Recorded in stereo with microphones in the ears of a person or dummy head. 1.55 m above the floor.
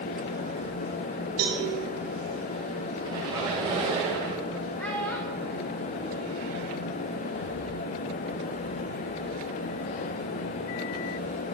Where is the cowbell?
70° right (ahead or behind), 4 m.